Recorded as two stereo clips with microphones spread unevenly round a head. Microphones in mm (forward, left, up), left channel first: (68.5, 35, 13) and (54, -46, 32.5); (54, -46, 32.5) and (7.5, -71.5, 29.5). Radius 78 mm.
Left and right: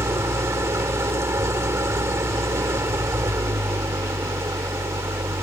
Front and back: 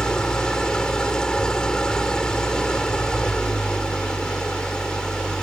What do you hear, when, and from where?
0.0 s an engine running: 45° right